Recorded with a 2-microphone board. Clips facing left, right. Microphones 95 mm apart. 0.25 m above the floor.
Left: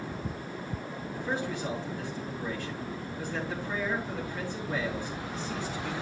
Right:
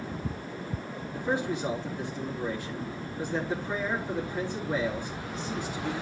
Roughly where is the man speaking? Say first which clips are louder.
Right 4 dB; centre.